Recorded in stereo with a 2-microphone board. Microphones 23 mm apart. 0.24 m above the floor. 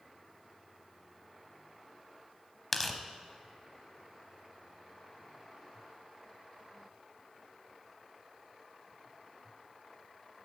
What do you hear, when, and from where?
2.7 s tearing paper: 5° left (ahead or behind), 0.7 m